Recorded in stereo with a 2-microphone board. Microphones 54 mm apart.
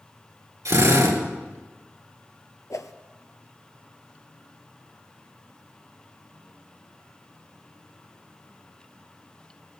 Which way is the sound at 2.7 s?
85° left.